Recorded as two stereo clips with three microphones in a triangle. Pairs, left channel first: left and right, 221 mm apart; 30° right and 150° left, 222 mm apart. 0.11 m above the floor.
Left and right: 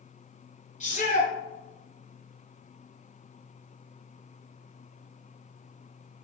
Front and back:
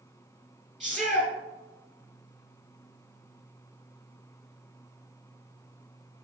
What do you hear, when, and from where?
0.8 s a shout: 65° left, 1.3 m